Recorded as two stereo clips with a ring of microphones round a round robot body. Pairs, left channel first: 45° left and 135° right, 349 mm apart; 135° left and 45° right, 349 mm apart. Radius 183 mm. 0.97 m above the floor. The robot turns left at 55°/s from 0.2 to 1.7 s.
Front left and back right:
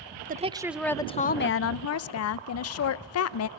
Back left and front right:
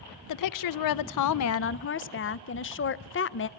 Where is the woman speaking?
160° left, 0.6 m; by 3.5 s 85° left, 0.6 m.